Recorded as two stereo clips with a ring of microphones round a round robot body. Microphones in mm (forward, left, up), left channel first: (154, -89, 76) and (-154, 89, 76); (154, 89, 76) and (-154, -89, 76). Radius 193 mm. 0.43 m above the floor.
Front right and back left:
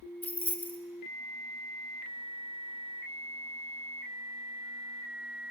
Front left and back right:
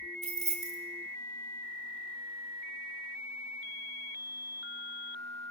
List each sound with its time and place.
0.2 s keys jangling: 110° right, 0.8 m